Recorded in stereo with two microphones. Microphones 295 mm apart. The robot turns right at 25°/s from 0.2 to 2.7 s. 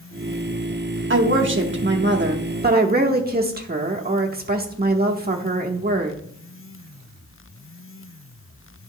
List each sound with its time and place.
1.1 s a woman speaking: 90° right, 0.8 m; by 6.2 s 50° right, 0.8 m